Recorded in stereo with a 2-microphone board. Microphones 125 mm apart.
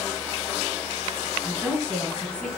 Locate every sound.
1.4 s a woman speaking: 5° left (ahead or behind), 6.5 m